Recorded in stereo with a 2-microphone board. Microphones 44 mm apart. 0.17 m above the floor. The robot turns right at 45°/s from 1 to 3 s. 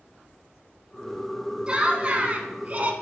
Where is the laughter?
135° right, 1.3 m; by 2.9 s 80° right, 1.3 m.